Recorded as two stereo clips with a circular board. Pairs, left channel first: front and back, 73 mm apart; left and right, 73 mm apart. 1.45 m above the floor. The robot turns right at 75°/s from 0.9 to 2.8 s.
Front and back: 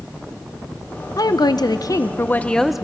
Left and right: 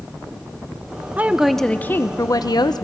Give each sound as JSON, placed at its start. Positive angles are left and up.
{"t": 1.2, "sound": "a woman speaking", "azimuth_deg": -25, "distance_m": 0.7}